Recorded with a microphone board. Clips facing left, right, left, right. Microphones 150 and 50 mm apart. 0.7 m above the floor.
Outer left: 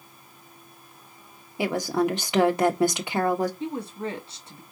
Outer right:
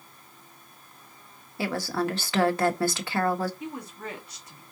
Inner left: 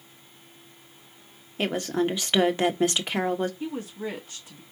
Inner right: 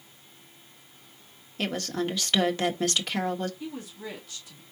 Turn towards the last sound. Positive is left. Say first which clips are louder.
# outer left 6 dB, inner left 5 dB
turn(degrees=30)  # may be behind; listen again after turning